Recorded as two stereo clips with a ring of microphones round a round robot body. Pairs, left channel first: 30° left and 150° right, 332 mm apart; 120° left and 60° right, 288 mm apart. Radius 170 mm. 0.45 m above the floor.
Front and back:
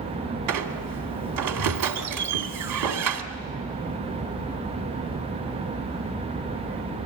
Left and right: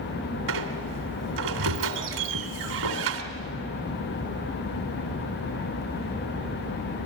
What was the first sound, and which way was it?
A squeak, 115° right.